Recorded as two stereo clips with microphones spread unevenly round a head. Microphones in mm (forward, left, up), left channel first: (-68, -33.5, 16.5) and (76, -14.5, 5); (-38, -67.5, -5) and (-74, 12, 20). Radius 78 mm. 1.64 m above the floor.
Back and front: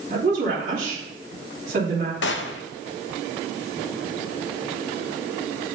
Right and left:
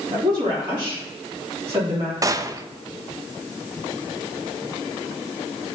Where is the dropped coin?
No dropped coin in this recording.